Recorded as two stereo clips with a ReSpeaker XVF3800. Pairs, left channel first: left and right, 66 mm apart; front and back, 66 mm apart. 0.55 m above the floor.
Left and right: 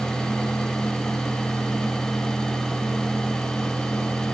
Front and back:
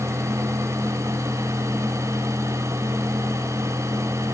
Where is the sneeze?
No sneeze in this recording.